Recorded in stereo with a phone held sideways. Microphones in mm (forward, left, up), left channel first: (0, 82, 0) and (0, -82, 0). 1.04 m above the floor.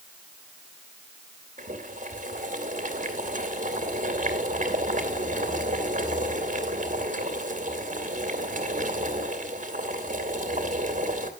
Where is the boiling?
50° right (ahead or behind), 2.5 m.